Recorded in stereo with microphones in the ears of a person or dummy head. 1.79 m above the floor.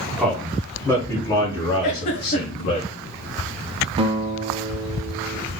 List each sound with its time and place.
0.2 s a man speaking: 5° left (ahead or behind), 1.6 m; by 2.8 s 55° left (ahead or behind), 1.7 m
1.8 s a giggle: 45° left (ahead or behind), 1.0 m
4.0 s a guitar: 25° right (ahead or behind), 0.9 m